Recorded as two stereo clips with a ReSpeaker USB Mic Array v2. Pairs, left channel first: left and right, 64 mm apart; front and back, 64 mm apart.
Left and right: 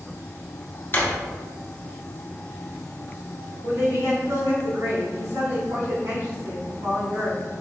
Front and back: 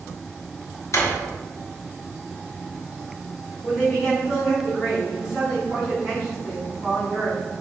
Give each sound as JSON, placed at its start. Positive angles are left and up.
{"t": 0.9, "sound": "a drawer", "azimuth_deg": 35, "distance_m": 0.7}
{"t": 3.6, "sound": "a woman speaking", "azimuth_deg": -90, "distance_m": 2.0}